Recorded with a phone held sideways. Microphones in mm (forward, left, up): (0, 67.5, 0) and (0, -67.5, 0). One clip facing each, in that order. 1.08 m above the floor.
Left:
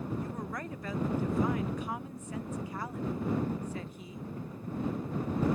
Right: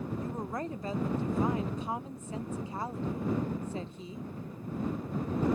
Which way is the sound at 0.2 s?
25° right (ahead or behind).